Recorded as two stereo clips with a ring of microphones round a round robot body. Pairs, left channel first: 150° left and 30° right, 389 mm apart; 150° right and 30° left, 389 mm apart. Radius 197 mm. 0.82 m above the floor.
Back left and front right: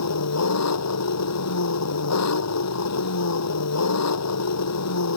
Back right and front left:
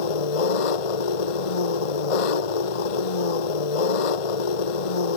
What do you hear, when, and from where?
0.0 s an engine running: 155° right